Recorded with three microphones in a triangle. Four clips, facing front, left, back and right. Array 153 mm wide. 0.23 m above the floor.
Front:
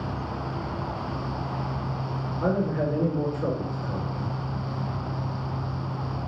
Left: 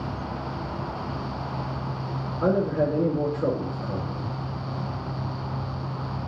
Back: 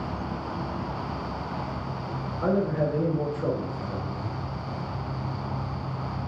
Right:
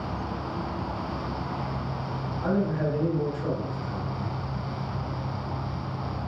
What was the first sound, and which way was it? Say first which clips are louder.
A man speaking: left 4 dB, back 1 dB; 90° left.